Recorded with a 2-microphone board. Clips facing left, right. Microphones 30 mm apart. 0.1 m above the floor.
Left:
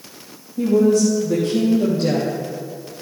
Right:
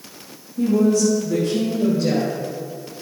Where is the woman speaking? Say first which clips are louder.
Left 2 dB; 25° left (ahead or behind), 4.5 m; by 2.3 s 40° left (ahead or behind), 4.5 m.